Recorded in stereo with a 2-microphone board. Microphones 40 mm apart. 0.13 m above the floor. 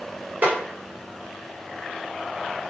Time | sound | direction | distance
0.4 | a snare drum | 45° right (ahead or behind) | 1.5 m